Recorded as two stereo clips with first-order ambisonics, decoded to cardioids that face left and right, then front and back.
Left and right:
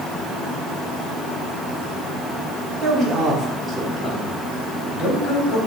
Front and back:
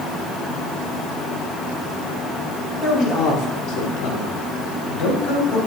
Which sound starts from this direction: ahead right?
A man speaking, at 2.8 s.